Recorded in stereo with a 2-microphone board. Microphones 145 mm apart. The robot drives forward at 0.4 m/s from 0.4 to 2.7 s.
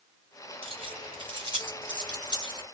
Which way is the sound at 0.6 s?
40° right (ahead or behind).